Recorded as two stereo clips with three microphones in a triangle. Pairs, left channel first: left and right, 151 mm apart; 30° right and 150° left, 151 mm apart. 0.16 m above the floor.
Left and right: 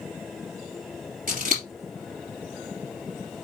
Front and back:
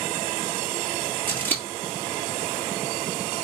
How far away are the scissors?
About 3.5 m.